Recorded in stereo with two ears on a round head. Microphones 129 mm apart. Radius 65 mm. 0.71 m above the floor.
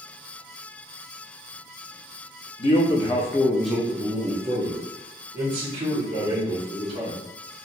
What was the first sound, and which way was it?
A man speaking, 40° left (ahead or behind).